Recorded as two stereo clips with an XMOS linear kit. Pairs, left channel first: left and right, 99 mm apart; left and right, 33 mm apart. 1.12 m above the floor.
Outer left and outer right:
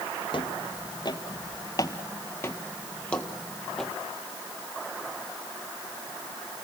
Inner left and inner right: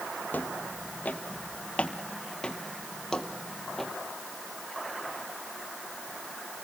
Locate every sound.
0.3 s footsteps: 55° left (ahead or behind), 1.8 m; by 3.9 s 5° left (ahead or behind), 2 m